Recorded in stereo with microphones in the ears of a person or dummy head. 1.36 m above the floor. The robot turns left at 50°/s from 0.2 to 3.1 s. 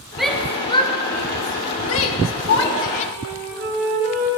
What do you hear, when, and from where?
0.2 s a shout: centre (ahead or behind), 1.6 m; by 3.0 s 35° left (ahead or behind), 1.6 m
3.1 s a flute: 55° right (ahead or behind), 5 m